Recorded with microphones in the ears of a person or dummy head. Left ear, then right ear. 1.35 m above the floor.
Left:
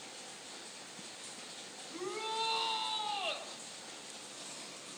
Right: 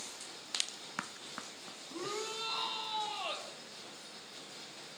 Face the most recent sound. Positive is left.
turn(degrees=15)  # may be behind; listen again after turning